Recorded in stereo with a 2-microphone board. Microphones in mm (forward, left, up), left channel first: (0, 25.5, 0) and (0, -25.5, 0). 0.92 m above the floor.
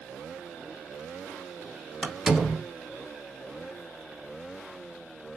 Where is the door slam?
10° right (ahead or behind), 1.1 m.